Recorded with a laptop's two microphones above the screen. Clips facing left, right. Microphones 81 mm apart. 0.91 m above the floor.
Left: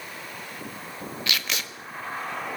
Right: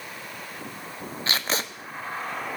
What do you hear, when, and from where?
1.3 s tape being pulled: 35° right (ahead or behind), 0.8 m